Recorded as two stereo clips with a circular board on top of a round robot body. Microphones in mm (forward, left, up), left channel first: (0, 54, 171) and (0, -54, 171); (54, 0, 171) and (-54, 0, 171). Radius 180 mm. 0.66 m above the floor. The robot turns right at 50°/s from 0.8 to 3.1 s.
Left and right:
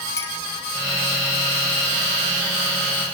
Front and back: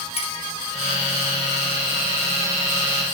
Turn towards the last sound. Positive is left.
turn(degrees=140)